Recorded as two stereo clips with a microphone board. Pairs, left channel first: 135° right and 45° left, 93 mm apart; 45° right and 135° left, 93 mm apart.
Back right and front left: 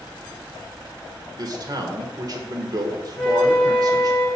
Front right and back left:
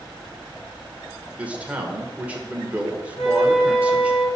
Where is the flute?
75° right, 3.5 m.